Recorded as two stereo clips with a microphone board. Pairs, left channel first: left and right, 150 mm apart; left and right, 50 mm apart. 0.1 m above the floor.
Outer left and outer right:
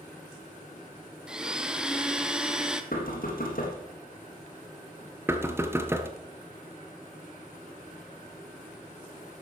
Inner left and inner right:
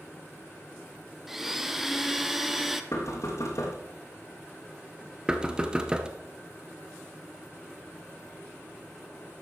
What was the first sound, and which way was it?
A blender, 5° right (ahead or behind).